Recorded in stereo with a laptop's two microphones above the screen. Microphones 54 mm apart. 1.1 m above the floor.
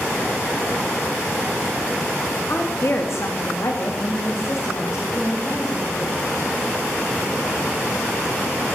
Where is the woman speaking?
40° left (ahead or behind), 2.5 m; by 6.3 s 50° left (ahead or behind), 5 m.